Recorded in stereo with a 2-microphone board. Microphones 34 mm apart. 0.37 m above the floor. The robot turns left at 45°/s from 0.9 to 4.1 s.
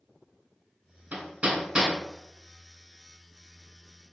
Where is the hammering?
50° right (ahead or behind), 2.5 m; by 1.9 s 15° right (ahead or behind), 2.5 m.